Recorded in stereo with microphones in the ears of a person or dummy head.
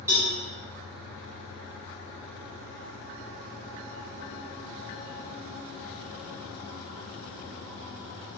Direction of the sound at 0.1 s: 15° right (ahead or behind).